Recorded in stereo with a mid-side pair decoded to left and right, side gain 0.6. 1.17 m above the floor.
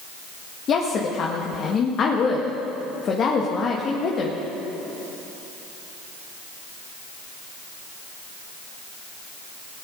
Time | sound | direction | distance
0.7 | a woman speaking | 45° left | 1.8 m